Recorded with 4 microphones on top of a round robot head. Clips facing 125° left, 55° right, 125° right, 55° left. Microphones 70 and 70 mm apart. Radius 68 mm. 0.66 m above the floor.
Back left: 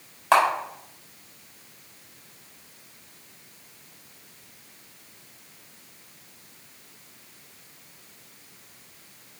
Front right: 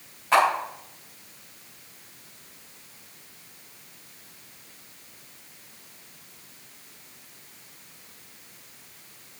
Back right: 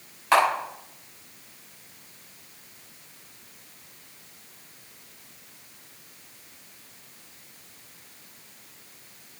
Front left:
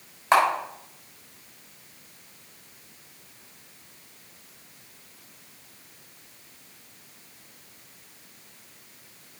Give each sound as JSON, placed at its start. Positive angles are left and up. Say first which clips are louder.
{"t": 0.3, "sound": "a camera shutter", "louder": "back left 1 dB, even", "azimuth_deg": 125, "distance_m": 5.0}